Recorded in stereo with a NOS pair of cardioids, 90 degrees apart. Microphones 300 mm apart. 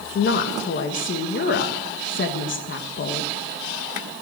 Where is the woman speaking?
40° left, 1.5 m.